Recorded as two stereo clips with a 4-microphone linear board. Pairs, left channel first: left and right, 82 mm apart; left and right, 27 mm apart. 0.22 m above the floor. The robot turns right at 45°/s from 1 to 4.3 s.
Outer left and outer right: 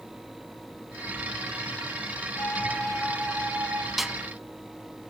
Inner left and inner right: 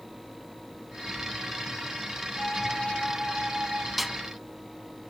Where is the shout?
No shout in this recording.